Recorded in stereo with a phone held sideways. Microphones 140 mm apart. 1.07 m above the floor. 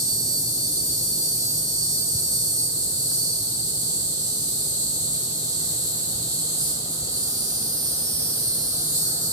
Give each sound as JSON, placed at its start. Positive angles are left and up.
{"t": 0.0, "sound": "an insect", "side_deg": -25, "distance_m": 1.2}